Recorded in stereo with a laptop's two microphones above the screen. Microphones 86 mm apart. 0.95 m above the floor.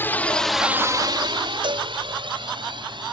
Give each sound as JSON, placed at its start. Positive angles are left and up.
{"t": 0.0, "sound": "a drone", "side_deg": 25}
{"t": 1.6, "sound": "a cowbell", "side_deg": -70}